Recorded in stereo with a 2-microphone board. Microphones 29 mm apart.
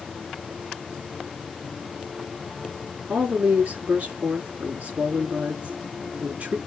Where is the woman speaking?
60° right (ahead or behind), 3 m.